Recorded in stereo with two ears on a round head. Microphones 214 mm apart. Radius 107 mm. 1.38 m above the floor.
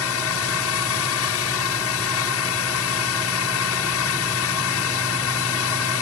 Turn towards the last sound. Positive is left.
turn(degrees=70)  # may be behind; listen again after turning